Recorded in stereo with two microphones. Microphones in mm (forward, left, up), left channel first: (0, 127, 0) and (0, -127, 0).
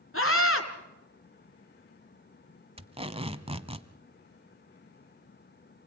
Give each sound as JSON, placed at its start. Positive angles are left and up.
{"t": 0.1, "sound": "a scream", "side_deg": 55, "distance_m": 3.5}
{"t": 2.8, "sound": "tape being pulled", "side_deg": -20, "distance_m": 1.1}